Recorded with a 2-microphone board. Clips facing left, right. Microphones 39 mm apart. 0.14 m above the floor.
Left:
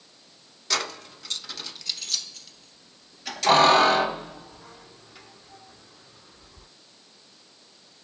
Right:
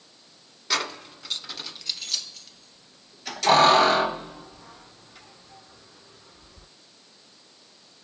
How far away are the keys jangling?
About 1.0 m.